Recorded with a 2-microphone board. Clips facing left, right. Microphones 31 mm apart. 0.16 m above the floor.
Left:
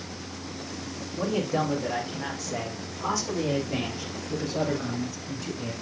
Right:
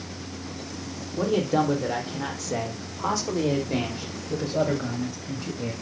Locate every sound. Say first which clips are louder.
1.2 s a man speaking: right 4 dB; 75° right (ahead or behind), 5.5 m; by 5.7 s 25° right (ahead or behind), 8.5 m